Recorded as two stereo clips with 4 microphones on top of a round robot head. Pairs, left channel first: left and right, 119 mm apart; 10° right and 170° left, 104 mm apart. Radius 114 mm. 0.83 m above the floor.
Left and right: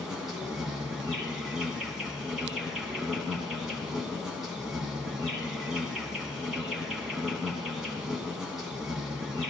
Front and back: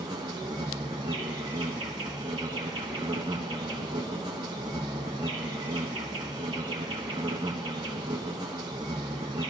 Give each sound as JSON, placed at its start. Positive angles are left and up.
{"t": 0.0, "sound": "an insect", "azimuth_deg": -170, "distance_m": 0.7}